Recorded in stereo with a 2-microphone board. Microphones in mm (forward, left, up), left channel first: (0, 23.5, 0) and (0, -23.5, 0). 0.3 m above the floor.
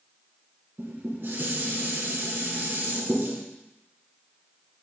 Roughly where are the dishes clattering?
Right.